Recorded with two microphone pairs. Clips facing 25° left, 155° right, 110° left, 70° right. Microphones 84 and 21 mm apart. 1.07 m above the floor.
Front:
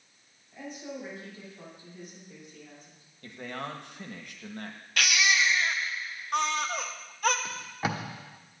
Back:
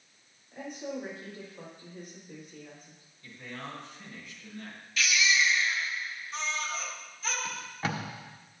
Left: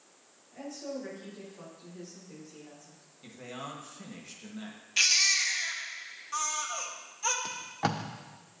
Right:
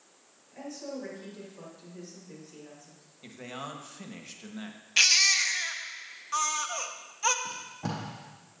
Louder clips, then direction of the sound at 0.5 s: Back 2 dB, even; 135° right.